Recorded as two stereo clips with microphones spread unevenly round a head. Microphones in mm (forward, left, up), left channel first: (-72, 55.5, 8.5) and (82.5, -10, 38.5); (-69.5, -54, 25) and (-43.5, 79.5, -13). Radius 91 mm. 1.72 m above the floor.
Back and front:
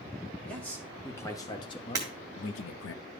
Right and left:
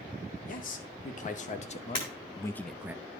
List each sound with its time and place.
0.5 s a man speaking: 120° right, 1.4 m; by 3.0 s 155° left, 0.5 m
1.9 s breaking glass: 80° right, 1.7 m